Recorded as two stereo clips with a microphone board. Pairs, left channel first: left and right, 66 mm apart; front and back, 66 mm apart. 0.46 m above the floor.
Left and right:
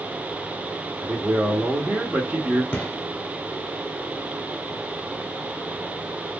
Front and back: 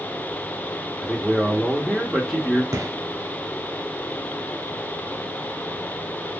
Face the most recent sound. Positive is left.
turn(degrees=150)